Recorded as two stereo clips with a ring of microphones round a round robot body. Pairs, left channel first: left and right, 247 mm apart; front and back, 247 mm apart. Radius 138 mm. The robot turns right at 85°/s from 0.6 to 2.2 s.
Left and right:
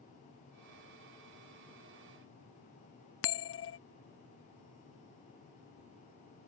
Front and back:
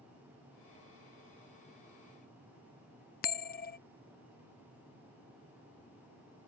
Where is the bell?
55° left.